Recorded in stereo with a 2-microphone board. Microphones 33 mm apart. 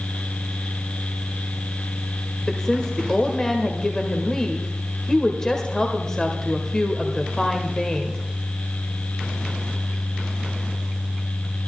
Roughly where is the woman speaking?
Centre.